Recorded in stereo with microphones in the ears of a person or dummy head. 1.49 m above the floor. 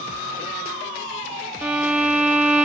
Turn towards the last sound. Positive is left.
turn(degrees=-10)  # may be behind; listen again after turning